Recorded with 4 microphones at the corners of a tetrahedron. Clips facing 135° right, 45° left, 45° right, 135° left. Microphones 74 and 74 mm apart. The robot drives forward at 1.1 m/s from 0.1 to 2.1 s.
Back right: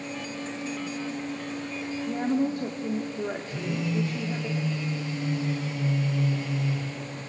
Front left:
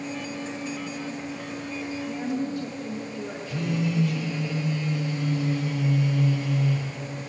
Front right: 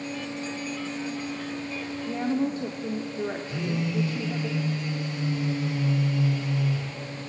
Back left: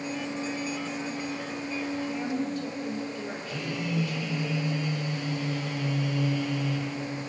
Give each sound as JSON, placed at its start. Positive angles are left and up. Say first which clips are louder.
{"t": 2.1, "sound": "a woman speaking", "louder": "back right 5 dB, front right 4 dB", "azimuth_deg": -90, "distance_m": 1.6}
{"t": 3.5, "sound": "a phone buzzing", "louder": "front left 2 dB, front right 3 dB", "azimuth_deg": 20, "distance_m": 6.5}